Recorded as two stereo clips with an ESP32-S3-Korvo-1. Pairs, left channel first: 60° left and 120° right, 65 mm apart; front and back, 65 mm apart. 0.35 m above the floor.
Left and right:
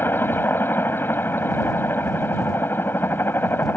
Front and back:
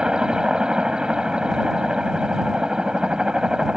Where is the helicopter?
105° left.